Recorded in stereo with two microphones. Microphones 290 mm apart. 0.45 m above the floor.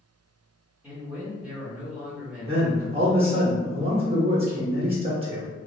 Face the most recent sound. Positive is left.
turn(degrees=-20)  # may be behind; listen again after turning